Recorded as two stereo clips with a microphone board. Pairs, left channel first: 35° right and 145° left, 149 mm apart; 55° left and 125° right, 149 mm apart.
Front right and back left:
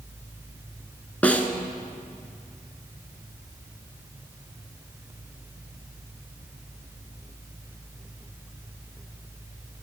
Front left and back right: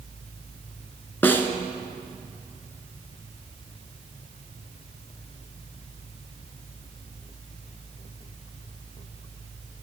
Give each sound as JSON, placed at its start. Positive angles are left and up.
{"t": 1.2, "sound": "a snare drum", "azimuth_deg": 20, "distance_m": 0.7}